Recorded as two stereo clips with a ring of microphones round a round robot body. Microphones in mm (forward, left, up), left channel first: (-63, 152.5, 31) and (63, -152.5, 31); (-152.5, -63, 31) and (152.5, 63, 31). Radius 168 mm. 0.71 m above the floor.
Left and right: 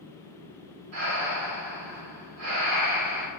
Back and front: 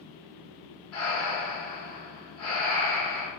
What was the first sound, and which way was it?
Breathing, 110° right.